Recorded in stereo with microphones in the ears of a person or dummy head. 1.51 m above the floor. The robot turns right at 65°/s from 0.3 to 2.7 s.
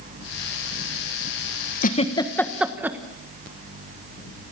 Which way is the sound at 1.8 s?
50° left (ahead or behind).